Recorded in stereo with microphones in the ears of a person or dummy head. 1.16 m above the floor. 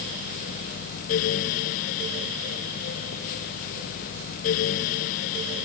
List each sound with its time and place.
Only background noise.